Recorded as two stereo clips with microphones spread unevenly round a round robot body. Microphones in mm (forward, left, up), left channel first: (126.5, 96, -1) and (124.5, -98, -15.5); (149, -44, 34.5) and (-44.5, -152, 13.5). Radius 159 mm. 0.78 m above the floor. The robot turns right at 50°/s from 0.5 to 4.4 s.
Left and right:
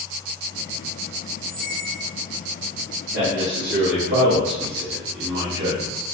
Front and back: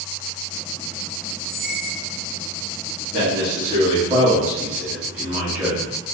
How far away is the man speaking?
About 1.6 m.